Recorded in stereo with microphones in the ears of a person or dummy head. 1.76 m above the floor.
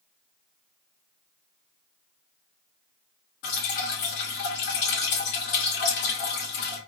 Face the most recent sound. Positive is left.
turn(degrees=45)  # may be behind; listen again after turning